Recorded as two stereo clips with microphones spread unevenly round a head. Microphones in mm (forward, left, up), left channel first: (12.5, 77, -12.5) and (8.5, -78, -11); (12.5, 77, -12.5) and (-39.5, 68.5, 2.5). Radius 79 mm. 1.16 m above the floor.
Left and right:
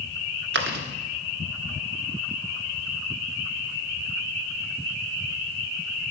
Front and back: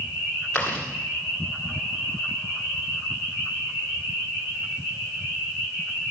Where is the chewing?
90° right, 1.4 m.